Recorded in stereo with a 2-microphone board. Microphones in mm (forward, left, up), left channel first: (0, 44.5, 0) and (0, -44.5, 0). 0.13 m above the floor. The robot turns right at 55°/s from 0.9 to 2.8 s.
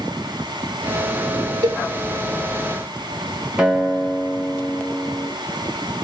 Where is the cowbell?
60° right (ahead or behind), 0.7 m; by 1.8 s 55° right (ahead or behind), 0.7 m.